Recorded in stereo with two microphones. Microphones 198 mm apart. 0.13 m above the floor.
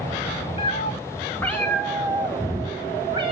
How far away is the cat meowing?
About 2 m.